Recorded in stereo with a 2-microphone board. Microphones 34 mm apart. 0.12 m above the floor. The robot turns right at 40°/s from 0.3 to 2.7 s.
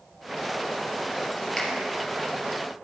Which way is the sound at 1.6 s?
15° left (ahead or behind).